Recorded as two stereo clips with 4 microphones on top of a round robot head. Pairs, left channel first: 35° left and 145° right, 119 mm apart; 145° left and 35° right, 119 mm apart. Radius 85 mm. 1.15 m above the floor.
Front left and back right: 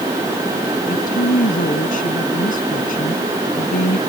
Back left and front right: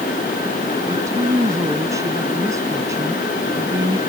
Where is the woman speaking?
30° left.